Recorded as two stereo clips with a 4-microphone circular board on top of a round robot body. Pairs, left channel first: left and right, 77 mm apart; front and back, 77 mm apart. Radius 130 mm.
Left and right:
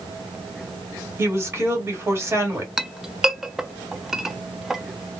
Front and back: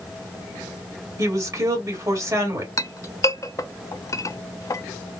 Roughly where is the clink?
Ahead.